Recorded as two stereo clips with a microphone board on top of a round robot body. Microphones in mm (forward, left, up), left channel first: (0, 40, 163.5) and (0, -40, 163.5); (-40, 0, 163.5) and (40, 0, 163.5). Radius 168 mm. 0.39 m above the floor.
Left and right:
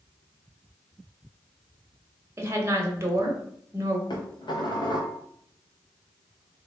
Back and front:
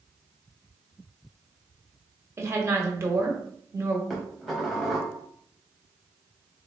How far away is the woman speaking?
About 1.3 m.